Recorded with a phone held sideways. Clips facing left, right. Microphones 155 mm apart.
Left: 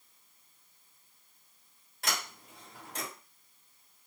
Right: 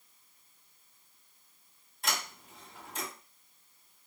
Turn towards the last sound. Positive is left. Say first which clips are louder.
# right 1 dB
turn(degrees=80)